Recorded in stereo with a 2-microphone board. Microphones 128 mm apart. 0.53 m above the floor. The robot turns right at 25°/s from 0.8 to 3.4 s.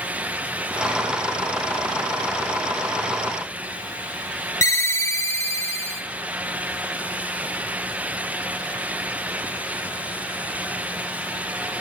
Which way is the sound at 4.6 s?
25° left (ahead or behind).